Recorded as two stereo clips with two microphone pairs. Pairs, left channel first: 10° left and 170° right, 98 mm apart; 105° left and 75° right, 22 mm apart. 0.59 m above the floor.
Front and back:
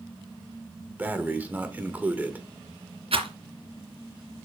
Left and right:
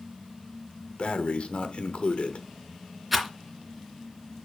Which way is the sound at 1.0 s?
115° left.